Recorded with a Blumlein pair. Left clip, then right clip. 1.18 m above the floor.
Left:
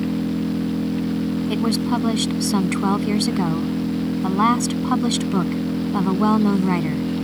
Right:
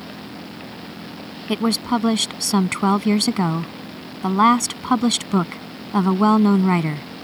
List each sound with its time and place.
0.0 s an engine running: 35° left
1.5 s a woman speaking: 10° right